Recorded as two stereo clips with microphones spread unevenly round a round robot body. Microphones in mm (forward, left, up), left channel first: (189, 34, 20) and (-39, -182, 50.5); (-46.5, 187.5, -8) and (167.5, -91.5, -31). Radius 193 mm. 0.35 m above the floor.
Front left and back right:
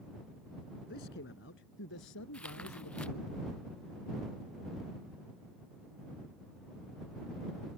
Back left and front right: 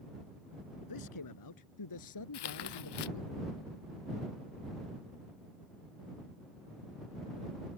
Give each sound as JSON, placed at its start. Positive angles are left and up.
{"t": 0.9, "sound": "a man speaking", "azimuth_deg": 105}
{"t": 2.3, "sound": "tearing paper", "azimuth_deg": 130}